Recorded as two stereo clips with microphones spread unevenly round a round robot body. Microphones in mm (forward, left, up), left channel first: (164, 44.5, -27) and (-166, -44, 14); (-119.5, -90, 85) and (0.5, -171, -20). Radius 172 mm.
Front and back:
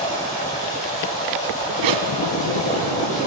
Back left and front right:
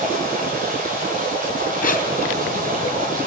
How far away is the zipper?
About 2.0 m.